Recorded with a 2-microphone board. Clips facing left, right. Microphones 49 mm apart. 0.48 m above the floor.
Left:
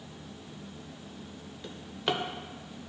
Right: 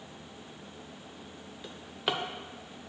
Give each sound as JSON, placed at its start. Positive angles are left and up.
{"t": 1.6, "sound": "a drawer", "side_deg": -5, "distance_m": 0.6}